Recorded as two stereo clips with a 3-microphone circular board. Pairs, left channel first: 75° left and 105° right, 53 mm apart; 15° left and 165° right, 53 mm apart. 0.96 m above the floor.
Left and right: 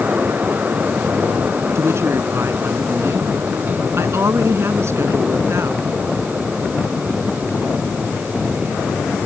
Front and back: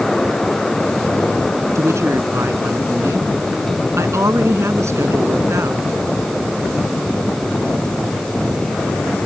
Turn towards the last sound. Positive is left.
turn(degrees=-135)